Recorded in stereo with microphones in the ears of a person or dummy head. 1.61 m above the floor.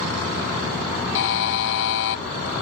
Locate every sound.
1.1 s a buzzer: 60° left (ahead or behind)